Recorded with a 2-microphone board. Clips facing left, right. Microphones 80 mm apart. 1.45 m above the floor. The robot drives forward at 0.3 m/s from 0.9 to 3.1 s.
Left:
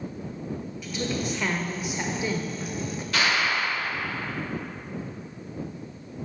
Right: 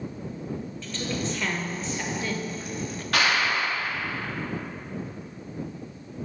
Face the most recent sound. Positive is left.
turn(degrees=-65)  # may be behind; listen again after turning